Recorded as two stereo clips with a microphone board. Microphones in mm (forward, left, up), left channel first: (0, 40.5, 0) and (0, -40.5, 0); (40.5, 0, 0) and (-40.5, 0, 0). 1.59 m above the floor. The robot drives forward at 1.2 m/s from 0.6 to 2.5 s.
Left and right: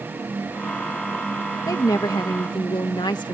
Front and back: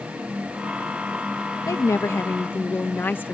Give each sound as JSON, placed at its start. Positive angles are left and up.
{"t": 1.7, "sound": "a woman speaking", "azimuth_deg": 45}